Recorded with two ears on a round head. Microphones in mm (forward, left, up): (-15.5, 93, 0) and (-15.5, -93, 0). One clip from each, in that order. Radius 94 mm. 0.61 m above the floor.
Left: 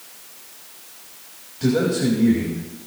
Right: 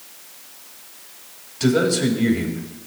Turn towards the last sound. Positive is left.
turn(degrees=-70)  # may be behind; listen again after turning